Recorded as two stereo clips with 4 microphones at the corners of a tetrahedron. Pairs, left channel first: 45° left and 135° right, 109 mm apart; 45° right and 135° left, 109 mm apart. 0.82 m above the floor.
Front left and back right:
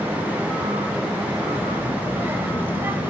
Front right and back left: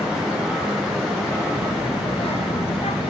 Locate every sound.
1.5 s a child speaking: 65° right, 2 m